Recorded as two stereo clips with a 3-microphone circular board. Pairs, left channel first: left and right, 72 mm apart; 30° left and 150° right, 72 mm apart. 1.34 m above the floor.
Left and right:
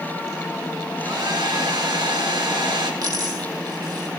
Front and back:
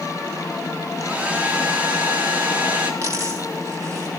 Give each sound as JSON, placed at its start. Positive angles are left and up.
{"t": 1.0, "sound": "a hair dryer", "azimuth_deg": -85, "distance_m": 3.0}
{"t": 3.0, "sound": "a dropped coin", "azimuth_deg": -105, "distance_m": 4.0}